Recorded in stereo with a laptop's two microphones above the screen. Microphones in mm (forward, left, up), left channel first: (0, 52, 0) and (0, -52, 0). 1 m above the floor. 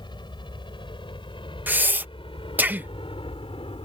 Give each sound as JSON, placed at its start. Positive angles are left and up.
{"t": 0.0, "sound": "a helicopter", "side_deg": 50}
{"t": 1.7, "sound": "breathing", "side_deg": -15}